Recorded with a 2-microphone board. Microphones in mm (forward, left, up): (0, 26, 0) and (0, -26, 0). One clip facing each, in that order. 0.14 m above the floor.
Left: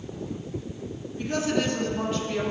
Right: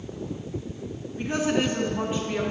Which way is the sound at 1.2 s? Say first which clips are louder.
Right 1 dB; 25° right (ahead or behind).